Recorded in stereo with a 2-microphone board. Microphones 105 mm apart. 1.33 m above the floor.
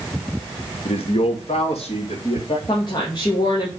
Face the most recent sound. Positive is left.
turn(degrees=45)  # may be behind; listen again after turning